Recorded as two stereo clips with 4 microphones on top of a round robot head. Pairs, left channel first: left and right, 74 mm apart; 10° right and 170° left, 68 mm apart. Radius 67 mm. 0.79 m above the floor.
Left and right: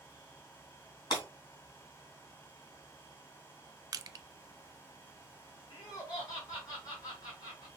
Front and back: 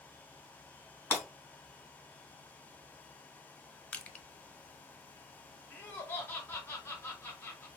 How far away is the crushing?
About 0.6 m.